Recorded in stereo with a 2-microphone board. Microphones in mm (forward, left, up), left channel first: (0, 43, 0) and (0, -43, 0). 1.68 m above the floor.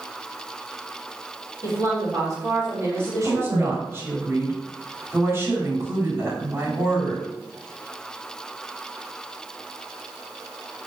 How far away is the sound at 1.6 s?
About 5.5 m.